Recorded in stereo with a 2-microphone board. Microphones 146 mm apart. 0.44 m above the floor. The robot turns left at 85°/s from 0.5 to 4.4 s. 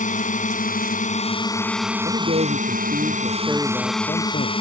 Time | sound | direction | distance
0.0 | a drone | 110° left | ?
2.0 | a man speaking | 50° right | ?